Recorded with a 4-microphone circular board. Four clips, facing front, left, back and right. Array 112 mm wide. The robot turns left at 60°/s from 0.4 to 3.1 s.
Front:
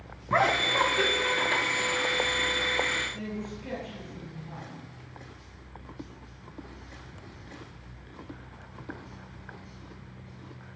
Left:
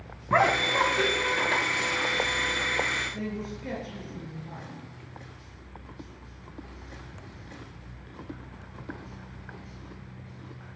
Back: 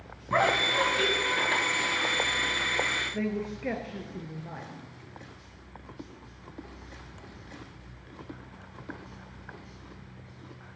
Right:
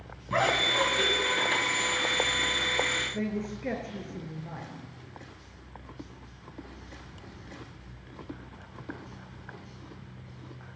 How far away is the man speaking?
About 3 m.